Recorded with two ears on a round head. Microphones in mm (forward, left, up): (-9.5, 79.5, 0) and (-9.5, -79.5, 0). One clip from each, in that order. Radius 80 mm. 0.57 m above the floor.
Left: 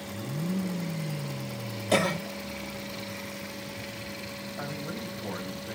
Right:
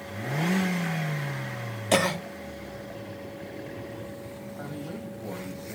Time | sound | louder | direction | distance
1.9 | a cough | right 2 dB | 20° right (ahead or behind) | 1.2 m
4.6 | a man speaking | left 2 dB | 45° left (ahead or behind) | 3 m